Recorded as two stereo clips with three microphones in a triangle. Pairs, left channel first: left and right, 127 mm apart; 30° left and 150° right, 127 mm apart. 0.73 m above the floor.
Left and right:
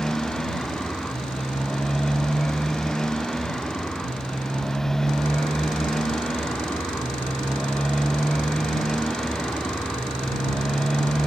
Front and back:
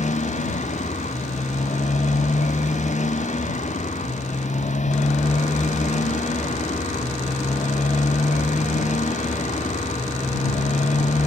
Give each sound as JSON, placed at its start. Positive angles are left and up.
{"t": 0.0, "sound": "a motorcycle", "azimuth_deg": 5}